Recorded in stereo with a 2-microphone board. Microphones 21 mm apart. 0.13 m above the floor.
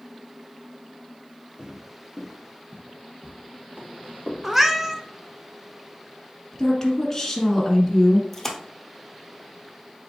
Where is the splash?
15° left (ahead or behind), 1.0 m.